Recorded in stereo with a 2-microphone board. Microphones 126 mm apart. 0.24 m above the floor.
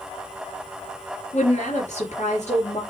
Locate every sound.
1.3 s a woman speaking: 65° left (ahead or behind), 4 m